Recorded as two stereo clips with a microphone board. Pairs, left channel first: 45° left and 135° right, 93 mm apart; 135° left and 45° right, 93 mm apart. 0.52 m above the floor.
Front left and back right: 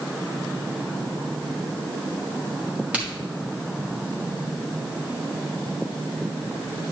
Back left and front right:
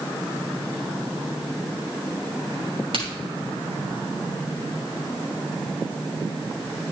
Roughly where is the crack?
Ahead right.